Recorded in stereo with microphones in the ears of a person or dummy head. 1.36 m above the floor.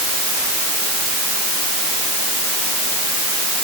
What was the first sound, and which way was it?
Only background noise.